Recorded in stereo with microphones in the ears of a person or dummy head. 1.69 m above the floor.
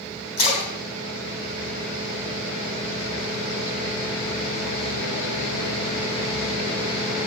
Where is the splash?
50° left (ahead or behind), 3 m.